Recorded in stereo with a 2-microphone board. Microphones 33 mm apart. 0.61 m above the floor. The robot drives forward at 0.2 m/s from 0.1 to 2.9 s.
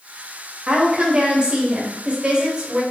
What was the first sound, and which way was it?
A woman speaking, 30° right (ahead or behind).